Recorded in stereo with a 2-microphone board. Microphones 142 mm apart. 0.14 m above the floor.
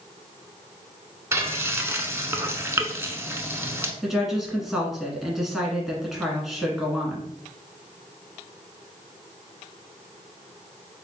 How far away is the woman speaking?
About 1.2 m.